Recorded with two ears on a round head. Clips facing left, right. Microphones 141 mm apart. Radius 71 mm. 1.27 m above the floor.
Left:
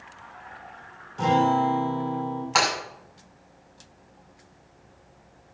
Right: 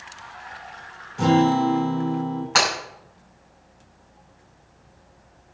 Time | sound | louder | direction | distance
1.2 | a guitar | right 3 dB | 10° right (ahead or behind) | 4.5 m
2.5 | breaking glass | right 1 dB | centre (ahead or behind) | 6 m